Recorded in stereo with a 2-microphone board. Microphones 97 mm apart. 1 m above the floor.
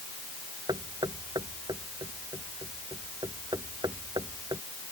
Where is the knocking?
50° right (ahead or behind).